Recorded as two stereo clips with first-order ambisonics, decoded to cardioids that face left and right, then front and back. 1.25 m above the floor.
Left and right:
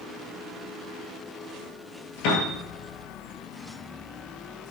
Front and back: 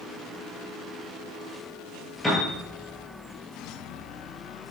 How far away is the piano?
About 3 m.